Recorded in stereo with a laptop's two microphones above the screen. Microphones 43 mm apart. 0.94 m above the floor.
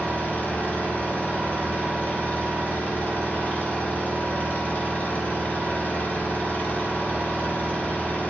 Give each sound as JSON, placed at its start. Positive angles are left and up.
{"t": 0.0, "sound": "an engine running", "side_deg": 35, "distance_m": 4.0}